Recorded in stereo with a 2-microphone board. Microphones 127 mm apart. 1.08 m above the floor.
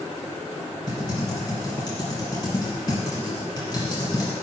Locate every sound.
0.9 s typing on a keyboard: 35° left (ahead or behind), 2 m